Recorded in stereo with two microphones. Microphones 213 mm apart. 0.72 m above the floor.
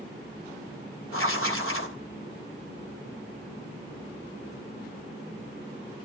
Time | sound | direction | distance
1.1 | writing | 80° left | 2.5 m